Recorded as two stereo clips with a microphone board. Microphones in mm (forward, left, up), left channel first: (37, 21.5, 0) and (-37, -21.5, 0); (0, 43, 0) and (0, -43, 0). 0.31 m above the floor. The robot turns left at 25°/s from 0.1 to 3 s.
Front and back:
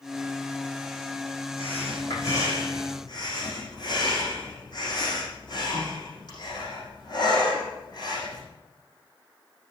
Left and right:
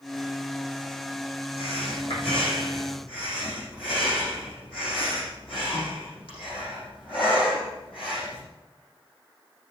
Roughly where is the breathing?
Left.